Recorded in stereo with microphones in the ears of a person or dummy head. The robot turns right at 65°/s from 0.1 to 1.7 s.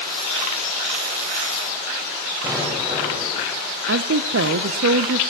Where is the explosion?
20° right (ahead or behind), 6.5 m.